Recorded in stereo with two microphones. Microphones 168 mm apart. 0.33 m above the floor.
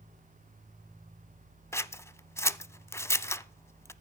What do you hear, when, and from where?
1.7 s scissors: 15° left (ahead or behind), 0.5 m